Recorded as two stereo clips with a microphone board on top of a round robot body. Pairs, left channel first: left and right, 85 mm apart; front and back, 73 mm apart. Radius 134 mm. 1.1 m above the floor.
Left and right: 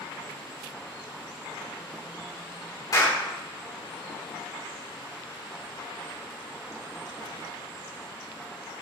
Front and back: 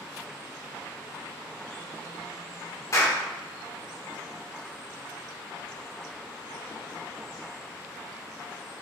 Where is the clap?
45° left, 3.5 m.